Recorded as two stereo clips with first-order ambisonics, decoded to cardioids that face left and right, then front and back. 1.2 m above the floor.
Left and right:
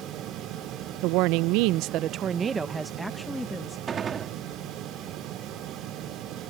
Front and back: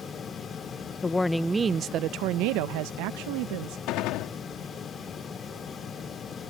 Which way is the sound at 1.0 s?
75° right.